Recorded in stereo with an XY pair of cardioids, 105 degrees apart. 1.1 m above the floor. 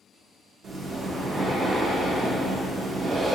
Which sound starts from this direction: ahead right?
Breathing, at 0.6 s.